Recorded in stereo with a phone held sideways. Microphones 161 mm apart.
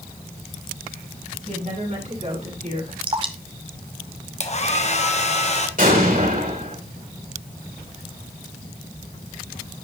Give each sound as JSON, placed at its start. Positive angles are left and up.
{"t": 1.4, "sound": "a woman speaking", "side_deg": -50, "distance_m": 7.5}
{"t": 3.0, "sound": "dripping", "side_deg": -30, "distance_m": 1.2}
{"t": 4.4, "sound": "a hair dryer", "side_deg": 45, "distance_m": 1.1}
{"t": 5.8, "sound": "an explosion", "side_deg": -60, "distance_m": 3.5}